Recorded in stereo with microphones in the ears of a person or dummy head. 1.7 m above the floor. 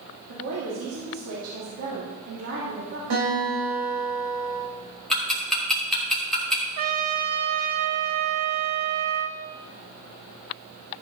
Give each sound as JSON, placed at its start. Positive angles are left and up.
{"t": 0.3, "sound": "a woman speaking", "side_deg": -75, "distance_m": 3.0}
{"t": 3.1, "sound": "a guitar", "side_deg": -65, "distance_m": 5.5}
{"t": 5.1, "sound": "ticking", "side_deg": 0, "distance_m": 2.5}
{"t": 6.8, "sound": "a trumpet", "side_deg": -40, "distance_m": 0.7}